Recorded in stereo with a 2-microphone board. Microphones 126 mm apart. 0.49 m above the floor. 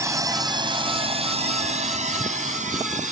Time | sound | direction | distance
0.0 | a drone | 25° right (ahead or behind) | ?